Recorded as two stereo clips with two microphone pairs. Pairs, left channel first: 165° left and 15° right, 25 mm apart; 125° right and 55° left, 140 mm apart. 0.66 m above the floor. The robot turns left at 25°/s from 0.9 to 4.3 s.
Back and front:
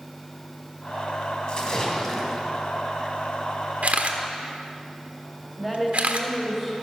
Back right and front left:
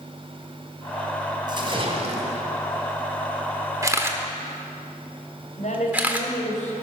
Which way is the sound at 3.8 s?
10° right.